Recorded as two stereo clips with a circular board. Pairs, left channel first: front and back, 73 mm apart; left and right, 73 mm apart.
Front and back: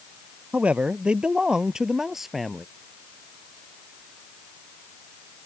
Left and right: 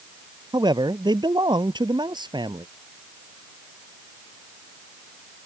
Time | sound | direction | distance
0.5 | a man speaking | 110° right | ?